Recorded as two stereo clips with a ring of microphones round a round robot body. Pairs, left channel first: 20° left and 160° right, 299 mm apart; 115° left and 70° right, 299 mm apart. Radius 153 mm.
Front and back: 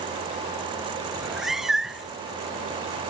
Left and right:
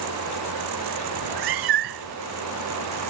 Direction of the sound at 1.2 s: 70° right.